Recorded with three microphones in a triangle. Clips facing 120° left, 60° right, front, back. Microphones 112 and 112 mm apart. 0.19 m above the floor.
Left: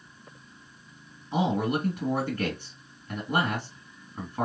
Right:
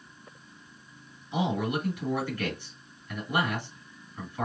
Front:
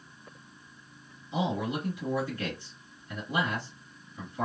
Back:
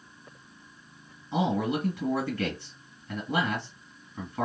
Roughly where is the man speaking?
Behind.